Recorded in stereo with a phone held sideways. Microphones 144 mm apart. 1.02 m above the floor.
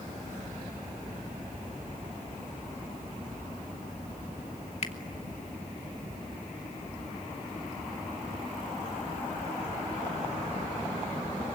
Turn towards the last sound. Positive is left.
turn(degrees=50)  # may be behind; listen again after turning